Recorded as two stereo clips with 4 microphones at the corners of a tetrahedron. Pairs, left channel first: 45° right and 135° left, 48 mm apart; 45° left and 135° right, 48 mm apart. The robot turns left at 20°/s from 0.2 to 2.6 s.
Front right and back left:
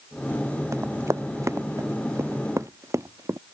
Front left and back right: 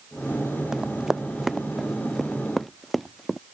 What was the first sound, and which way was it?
Running footsteps, 150° left.